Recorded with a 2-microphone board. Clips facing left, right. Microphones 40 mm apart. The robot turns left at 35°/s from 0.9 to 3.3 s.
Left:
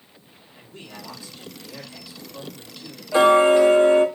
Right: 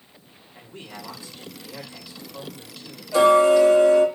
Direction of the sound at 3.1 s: 30° left (ahead or behind).